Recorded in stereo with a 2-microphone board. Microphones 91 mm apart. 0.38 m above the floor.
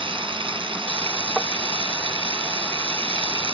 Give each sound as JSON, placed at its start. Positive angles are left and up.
{"t": 0.0, "sound": "running water", "side_deg": -75}
{"t": 1.4, "sound": "tapping", "side_deg": 5}